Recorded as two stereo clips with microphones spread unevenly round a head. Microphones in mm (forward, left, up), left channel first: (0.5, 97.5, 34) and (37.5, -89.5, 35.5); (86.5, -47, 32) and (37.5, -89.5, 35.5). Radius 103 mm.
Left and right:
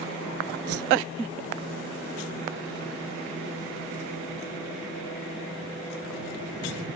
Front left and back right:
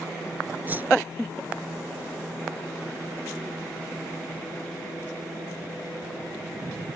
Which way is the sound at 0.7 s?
80° right.